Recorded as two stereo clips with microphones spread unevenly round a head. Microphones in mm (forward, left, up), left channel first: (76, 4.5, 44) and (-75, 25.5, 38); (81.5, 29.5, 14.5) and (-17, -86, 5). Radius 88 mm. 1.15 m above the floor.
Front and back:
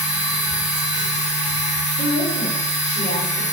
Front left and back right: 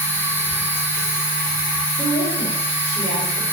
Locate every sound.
0.0 s a machine running: 160° left, 2.5 m
2.0 s a woman speaking: 150° left, 2.5 m